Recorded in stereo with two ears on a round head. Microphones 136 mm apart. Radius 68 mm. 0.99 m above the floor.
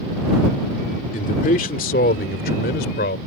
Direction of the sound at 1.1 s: 60° left (ahead or behind).